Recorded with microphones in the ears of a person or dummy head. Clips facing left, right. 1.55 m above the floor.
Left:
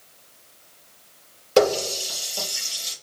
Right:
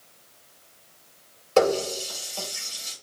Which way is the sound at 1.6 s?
20° left (ahead or behind).